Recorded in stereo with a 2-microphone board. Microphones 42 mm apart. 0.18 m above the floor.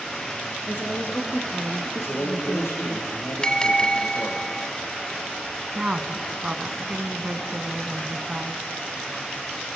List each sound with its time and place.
0.7 s a woman speaking: 50° left (ahead or behind), 2.5 m
2.0 s a man speaking: 80° left, 8 m
3.4 s a bell: 20° left (ahead or behind), 0.5 m
5.8 s a woman speaking: 25° right (ahead or behind), 1.3 m